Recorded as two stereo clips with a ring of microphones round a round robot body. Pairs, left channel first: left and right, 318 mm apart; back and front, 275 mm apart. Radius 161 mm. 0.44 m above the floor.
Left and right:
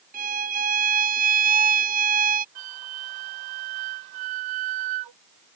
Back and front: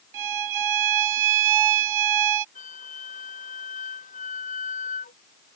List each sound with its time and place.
0.1 s a violin: 25° right
2.5 s a flute: 110° right